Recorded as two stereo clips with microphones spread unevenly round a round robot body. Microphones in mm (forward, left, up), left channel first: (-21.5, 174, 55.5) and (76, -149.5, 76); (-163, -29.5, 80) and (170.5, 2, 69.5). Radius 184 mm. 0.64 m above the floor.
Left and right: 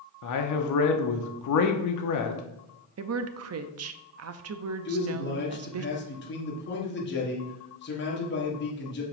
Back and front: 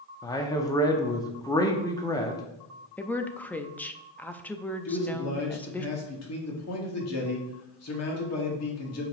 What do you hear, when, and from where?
0.2 s a man speaking: 105° left, 0.9 m
3.0 s a woman speaking: 90° right, 0.7 m
4.8 s a man speaking: 155° left, 1.8 m